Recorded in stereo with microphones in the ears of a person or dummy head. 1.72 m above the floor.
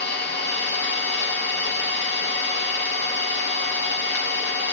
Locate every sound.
0.0 s an engine running: 60° left (ahead or behind), 1.2 m